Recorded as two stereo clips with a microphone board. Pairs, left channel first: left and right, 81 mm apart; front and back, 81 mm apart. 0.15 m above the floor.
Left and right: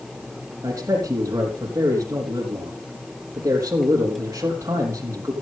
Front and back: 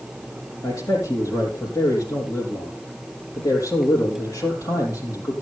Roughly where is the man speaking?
Ahead right.